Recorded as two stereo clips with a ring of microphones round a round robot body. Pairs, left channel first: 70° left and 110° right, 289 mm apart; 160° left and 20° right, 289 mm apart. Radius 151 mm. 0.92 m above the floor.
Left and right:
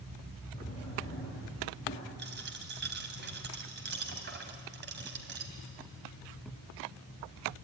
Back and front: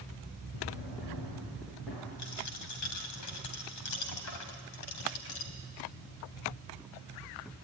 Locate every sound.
0.5 s a drawer: 140° left, 8.5 m
2.2 s a dropped coin: 170° right, 2.5 m